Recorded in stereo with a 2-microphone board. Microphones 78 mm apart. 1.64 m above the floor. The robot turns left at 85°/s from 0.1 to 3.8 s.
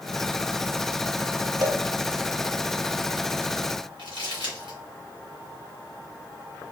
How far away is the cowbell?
About 0.6 m.